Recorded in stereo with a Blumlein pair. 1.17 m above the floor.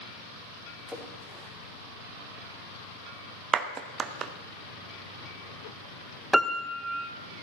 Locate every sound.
0.9 s a splash: 5° left, 4 m
3.5 s a clap: 25° right, 1.0 m
6.3 s a piano: 5° right, 0.7 m